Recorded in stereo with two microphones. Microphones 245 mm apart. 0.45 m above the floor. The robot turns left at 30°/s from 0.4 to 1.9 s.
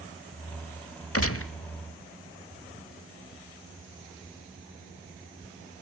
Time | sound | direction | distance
1.1 | a gunshot | 70° left (ahead or behind) | 1.0 m